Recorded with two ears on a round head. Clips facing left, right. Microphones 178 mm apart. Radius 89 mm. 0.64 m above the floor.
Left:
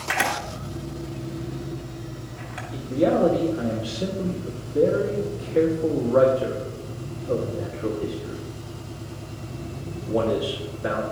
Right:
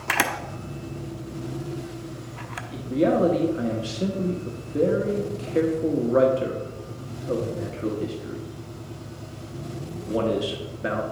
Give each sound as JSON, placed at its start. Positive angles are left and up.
{"t": 0.1, "sound": "a camera shutter", "side_deg": -60, "distance_m": 0.7}
{"t": 2.7, "sound": "a man speaking", "side_deg": -35, "distance_m": 1.0}